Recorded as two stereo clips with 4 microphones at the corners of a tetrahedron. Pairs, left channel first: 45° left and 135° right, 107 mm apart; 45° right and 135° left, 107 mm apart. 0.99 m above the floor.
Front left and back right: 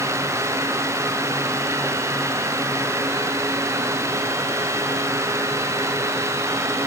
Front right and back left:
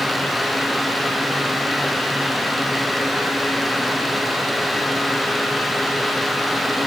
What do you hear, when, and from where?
Only background noise.